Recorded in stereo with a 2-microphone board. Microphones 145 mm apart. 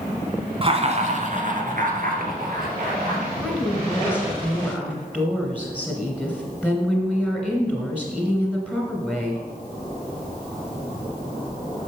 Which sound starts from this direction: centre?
A woman speaking, at 3.4 s.